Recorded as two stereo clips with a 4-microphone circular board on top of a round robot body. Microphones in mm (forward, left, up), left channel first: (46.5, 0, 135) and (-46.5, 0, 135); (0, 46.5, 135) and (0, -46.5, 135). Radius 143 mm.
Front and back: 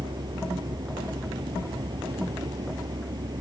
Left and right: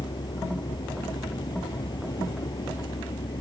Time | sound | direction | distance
0.0 | a vehicle | 135° left | ?